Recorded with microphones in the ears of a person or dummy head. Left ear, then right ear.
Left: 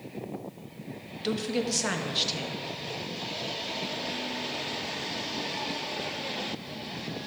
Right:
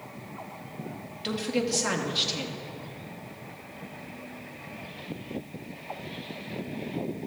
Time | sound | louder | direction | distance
1.2 | a woman speaking | right 1 dB | 10° left (ahead or behind) | 0.8 m